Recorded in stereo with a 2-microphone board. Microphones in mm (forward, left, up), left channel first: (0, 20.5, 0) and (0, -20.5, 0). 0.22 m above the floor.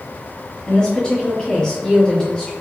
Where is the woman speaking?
20° left (ahead or behind), 1.3 m.